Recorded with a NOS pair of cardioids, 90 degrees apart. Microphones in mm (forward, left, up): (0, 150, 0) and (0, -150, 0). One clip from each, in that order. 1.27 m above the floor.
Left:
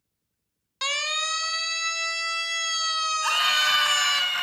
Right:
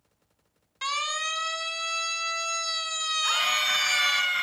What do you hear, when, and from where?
0.8 s a siren: 55° left, 5.5 m; by 4.2 s 40° left, 4 m
3.2 s a scream: 65° left, 10 m